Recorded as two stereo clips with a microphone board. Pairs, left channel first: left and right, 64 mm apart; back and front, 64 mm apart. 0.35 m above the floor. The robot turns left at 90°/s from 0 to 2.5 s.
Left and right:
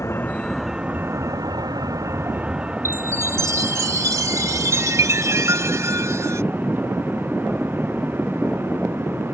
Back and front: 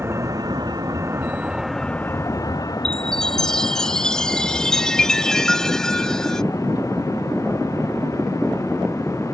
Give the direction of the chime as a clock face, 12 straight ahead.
3 o'clock.